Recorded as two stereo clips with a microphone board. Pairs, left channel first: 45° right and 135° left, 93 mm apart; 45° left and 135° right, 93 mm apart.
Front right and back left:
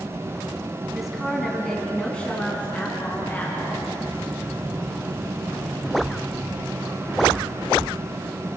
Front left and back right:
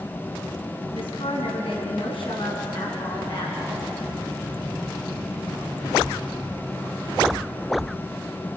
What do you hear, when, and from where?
0.9 s a woman speaking: 50° left, 2.5 m; by 3.9 s 20° left, 3.5 m